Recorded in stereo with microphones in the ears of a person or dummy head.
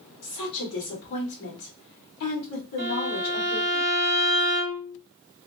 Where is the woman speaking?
70° left (ahead or behind), 1.8 m.